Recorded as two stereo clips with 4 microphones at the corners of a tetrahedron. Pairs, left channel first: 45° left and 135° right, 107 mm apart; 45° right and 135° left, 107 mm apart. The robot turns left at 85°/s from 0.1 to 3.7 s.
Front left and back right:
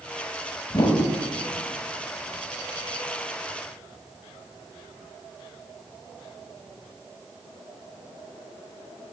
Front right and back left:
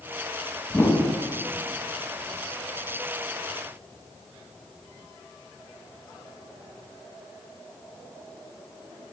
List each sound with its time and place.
0.7 s a whoosh: 20° left, 1.4 m; by 1.0 s 5° right, 1.4 m